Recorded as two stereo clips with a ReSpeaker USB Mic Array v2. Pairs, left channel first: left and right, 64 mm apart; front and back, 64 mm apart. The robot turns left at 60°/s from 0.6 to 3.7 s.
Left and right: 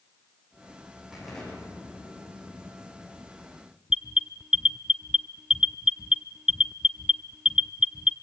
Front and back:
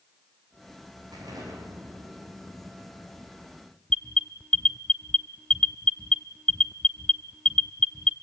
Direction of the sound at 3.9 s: 40° right.